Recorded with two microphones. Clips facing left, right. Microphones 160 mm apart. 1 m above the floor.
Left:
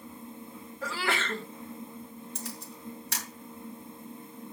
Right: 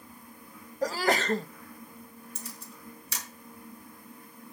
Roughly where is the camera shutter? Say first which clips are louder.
Left 4 dB; left.